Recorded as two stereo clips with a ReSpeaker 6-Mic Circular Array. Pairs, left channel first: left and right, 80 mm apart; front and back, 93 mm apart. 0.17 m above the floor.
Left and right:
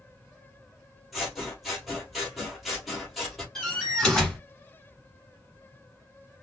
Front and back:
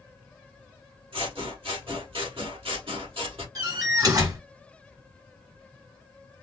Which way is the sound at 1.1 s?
Straight behind.